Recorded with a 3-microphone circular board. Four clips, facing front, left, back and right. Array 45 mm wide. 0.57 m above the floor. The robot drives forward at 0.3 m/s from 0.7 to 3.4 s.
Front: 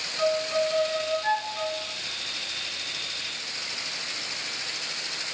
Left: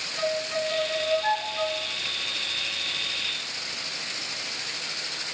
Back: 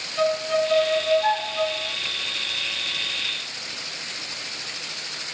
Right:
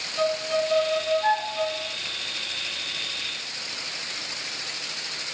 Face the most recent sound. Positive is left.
turn(degrees=-155)